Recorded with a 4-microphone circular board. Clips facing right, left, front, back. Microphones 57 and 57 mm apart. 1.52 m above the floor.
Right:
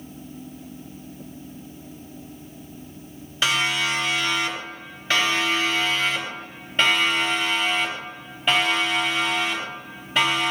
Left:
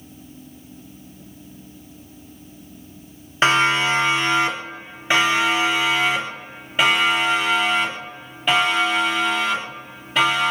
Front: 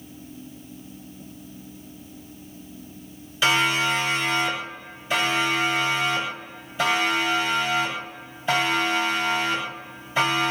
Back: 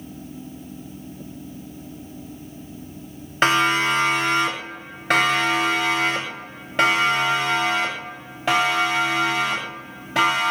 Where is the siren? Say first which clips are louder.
Left 6 dB, back 3 dB; 140° left, 5 m; by 10.5 s 175° right, 12.5 m.